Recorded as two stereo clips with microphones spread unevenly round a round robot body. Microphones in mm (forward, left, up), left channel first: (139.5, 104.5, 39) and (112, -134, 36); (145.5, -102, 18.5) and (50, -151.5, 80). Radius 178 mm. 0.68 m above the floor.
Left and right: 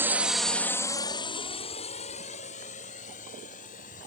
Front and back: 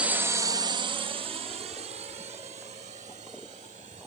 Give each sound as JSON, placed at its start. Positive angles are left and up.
{"t": 0.0, "sound": "a drone", "azimuth_deg": -25}